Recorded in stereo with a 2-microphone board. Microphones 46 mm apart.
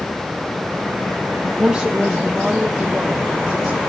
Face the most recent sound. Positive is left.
turn(degrees=0)  # may be behind; listen again after turning